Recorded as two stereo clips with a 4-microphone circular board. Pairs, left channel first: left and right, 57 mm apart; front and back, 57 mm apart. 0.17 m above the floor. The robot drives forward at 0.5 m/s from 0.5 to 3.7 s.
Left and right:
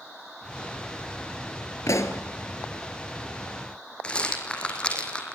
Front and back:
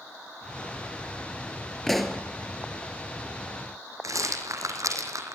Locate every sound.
1.9 s a pop: 85° left, 2 m; by 2.2 s 90° left, 2 m
4.0 s a rattle: 160° left, 3.5 m